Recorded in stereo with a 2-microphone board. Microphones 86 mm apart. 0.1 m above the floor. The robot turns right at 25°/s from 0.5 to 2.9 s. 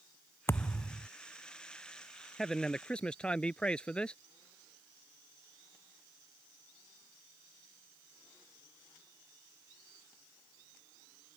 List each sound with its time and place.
0.5 s a thud: 30° left (ahead or behind); by 1.1 s 15° left (ahead or behind)
2.4 s a man speaking: 5° left (ahead or behind); by 4.2 s 10° left (ahead or behind)